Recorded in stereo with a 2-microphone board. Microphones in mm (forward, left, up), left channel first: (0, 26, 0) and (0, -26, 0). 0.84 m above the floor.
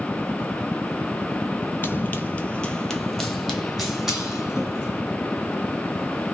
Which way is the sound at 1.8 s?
40° left (ahead or behind).